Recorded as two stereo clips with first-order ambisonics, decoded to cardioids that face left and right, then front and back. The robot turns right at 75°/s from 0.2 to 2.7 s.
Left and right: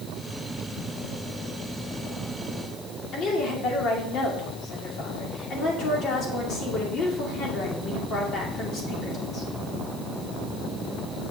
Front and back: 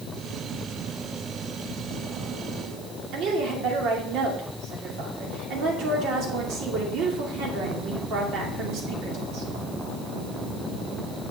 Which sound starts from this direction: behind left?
A woman speaking, at 3.1 s.